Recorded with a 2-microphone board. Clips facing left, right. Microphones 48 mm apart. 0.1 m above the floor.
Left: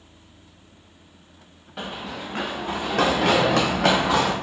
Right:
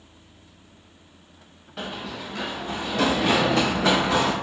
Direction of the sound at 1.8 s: 5° left (ahead or behind).